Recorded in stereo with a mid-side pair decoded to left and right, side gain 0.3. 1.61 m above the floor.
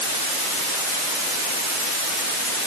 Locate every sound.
Only background noise.